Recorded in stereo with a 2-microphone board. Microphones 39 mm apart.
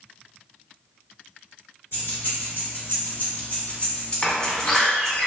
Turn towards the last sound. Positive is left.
turn(degrees=20)  # may be behind; listen again after turning